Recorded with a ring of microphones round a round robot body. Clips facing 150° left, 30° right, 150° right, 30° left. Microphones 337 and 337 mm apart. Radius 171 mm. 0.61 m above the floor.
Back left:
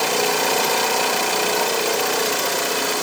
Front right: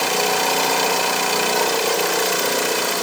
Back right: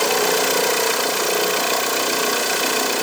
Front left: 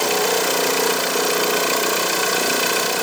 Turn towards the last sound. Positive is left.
No sound to turn to.